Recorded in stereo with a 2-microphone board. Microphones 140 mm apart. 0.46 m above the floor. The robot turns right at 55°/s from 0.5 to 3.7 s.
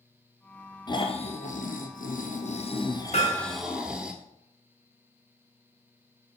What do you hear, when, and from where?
0.9 s snoring: 30° left, 1.3 m; by 4.1 s 175° right, 1.3 m
3.1 s hammering: 50° left (ahead or behind), 2.5 m; by 3.6 s 70° left (ahead or behind), 2.5 m